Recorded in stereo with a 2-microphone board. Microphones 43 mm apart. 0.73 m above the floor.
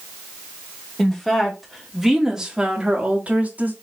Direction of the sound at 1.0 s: 10° left (ahead or behind).